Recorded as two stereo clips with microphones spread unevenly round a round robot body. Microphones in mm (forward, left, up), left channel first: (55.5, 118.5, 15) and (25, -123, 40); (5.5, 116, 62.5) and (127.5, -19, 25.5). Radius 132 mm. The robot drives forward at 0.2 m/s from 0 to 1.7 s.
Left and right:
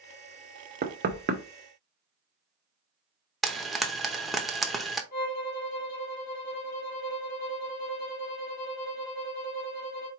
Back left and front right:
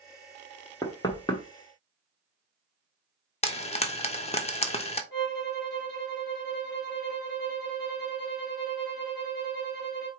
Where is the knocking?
150° right, 0.7 m; by 1.4 s 155° right, 0.8 m.